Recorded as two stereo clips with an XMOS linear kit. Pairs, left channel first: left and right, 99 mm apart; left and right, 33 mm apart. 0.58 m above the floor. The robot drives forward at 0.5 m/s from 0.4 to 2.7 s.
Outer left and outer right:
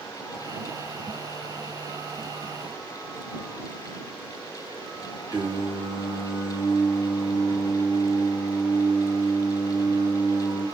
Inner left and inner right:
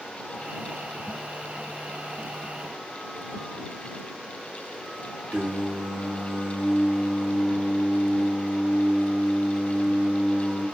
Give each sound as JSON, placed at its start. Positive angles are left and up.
{"t": 5.3, "sound": "singing", "side_deg": -50, "distance_m": 1.2}